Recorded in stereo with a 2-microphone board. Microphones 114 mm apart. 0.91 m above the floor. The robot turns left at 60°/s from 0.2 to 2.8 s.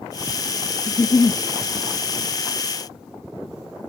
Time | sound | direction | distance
0.9 | a giggle | 160° left | ?